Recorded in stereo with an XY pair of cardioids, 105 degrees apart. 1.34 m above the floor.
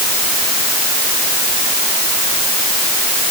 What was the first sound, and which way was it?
Only background noise.